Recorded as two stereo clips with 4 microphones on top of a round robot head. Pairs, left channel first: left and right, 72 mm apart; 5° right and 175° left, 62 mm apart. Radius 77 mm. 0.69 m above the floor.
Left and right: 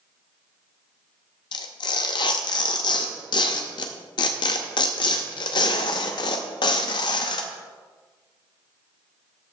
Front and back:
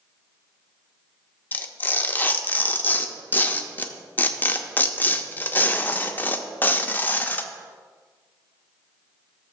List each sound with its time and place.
1.5 s tearing paper: 60° left, 0.6 m